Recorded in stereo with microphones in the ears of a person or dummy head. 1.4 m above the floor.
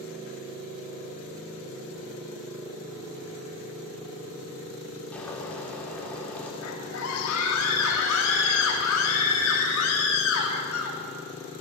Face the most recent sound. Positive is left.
turn(degrees=90)